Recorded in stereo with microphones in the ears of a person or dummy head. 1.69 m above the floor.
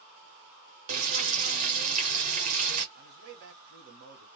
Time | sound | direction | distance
0.9 | frying | 45° right (ahead or behind) | 0.7 m
3.0 | a man speaking | 60° right (ahead or behind) | 1.1 m